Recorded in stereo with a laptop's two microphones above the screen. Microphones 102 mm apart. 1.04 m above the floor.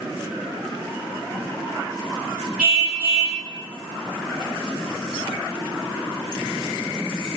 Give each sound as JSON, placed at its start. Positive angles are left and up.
{"t": 2.6, "sound": "a car horn", "side_deg": -10, "distance_m": 5.0}